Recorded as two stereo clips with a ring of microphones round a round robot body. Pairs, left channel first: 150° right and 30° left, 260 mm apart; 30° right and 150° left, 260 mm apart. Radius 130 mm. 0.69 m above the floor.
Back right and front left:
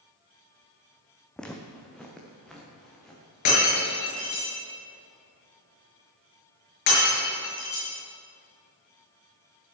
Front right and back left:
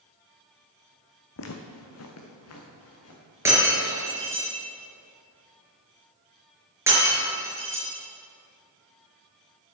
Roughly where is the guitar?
I don't hear a guitar.